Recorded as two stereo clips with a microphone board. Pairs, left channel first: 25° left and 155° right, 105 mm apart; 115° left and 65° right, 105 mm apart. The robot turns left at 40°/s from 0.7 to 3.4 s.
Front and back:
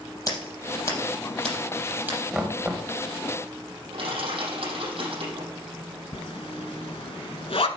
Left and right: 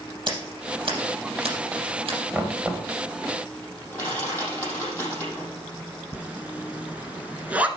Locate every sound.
0.3 s scissors: 35° right, 5 m; by 2.2 s 95° right, 5 m
2.3 s knocking: 90° right, 1.2 m; by 2.9 s 110° right, 1.2 m
3.9 s crushing: 175° right, 6.5 m
6.1 s a zipper: 10° left, 0.9 m